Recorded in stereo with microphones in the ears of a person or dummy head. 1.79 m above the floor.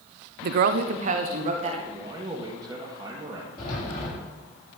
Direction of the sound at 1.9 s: 15° right (ahead or behind).